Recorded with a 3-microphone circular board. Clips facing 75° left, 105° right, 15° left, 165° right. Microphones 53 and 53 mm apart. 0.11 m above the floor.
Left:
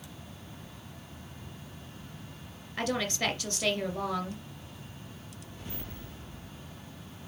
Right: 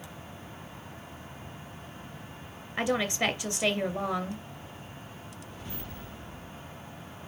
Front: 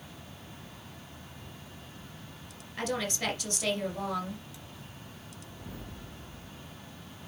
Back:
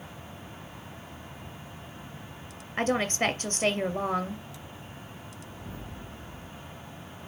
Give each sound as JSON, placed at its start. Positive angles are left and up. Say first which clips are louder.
{"t": 2.8, "sound": "a woman speaking", "louder": "right 3 dB, back 6 dB", "azimuth_deg": -165, "distance_m": 2.0}